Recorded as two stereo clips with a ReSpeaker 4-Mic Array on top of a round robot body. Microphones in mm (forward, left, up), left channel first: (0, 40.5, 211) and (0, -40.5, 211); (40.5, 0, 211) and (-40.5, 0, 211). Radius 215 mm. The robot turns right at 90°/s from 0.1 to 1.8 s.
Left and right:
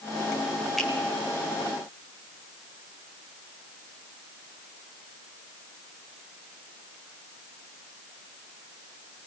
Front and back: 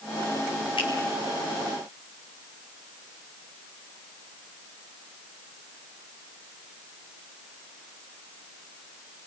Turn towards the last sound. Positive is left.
turn(degrees=95)